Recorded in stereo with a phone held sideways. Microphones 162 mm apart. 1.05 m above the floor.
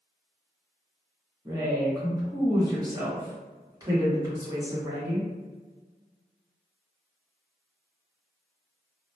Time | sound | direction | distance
1.4 | a woman speaking | 25° right (ahead or behind) | 1.0 m